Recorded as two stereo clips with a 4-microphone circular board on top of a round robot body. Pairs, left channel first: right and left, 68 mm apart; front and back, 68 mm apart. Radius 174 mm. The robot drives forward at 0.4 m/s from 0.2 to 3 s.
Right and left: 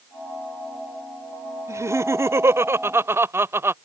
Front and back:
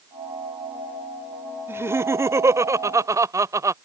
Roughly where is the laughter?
Behind left.